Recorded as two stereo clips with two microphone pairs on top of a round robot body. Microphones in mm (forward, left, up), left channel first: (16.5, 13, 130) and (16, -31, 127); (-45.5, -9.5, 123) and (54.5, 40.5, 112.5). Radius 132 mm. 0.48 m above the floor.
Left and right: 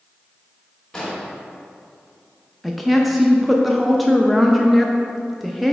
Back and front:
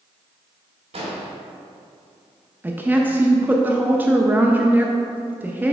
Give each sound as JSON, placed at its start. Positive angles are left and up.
{"t": 0.9, "sound": "an explosion", "azimuth_deg": 10, "distance_m": 1.6}
{"t": 2.6, "sound": "a woman speaking", "azimuth_deg": -10, "distance_m": 0.7}